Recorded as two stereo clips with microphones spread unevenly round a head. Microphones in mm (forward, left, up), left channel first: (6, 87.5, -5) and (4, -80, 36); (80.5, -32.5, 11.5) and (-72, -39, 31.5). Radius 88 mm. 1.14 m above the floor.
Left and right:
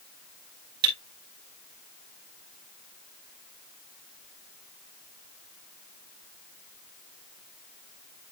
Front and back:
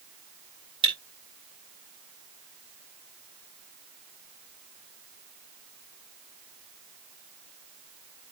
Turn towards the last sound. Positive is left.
turn(degrees=-120)